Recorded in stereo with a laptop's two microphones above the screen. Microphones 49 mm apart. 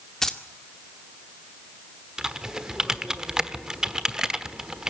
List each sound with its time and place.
0.2 s keys jangling: 10° left (ahead or behind), 1.9 m
2.2 s typing on a keyboard: 15° right (ahead or behind), 1.2 m